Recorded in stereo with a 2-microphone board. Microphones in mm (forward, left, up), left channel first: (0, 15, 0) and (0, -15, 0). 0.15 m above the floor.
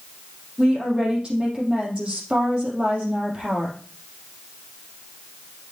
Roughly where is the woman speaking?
Right.